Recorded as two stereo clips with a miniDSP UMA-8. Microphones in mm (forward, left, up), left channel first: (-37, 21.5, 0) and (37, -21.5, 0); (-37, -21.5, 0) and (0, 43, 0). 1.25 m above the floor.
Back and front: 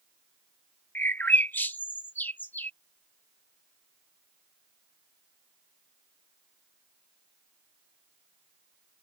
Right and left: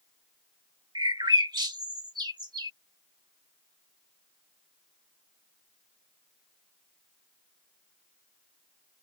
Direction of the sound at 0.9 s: 80° left.